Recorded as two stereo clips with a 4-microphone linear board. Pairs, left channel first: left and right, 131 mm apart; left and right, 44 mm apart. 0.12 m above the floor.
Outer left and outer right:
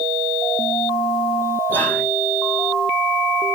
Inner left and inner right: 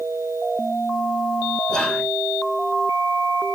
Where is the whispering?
15° left (ahead or behind), 1.1 m.